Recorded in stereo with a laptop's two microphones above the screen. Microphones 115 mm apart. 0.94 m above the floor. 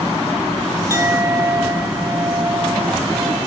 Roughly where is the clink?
Right.